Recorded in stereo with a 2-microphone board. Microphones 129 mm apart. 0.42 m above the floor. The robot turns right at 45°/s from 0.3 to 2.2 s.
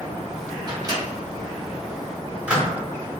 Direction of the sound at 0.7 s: 30° right (ahead or behind).